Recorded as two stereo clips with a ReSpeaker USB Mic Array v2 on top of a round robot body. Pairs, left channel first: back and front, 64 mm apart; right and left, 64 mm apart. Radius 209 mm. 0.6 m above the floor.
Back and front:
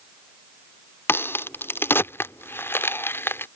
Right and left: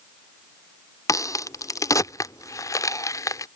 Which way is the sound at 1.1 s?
125° right.